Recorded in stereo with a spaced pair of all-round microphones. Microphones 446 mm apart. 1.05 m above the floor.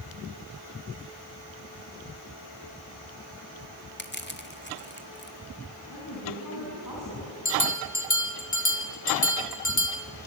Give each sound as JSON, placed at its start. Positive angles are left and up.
{"t": 4.0, "sound": "crushing", "side_deg": 25, "distance_m": 1.8}
{"t": 5.9, "sound": "a woman speaking", "side_deg": 45, "distance_m": 8.5}
{"t": 7.5, "sound": "a bell", "side_deg": 40, "distance_m": 1.6}